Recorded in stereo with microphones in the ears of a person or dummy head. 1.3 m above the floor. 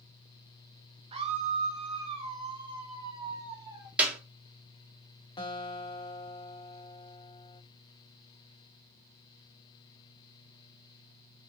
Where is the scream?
30° right (ahead or behind), 1.1 m; by 3.9 s 25° right (ahead or behind), 2.5 m.